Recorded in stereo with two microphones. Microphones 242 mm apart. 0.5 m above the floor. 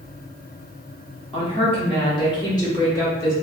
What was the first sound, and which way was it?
A woman speaking, 25° left (ahead or behind).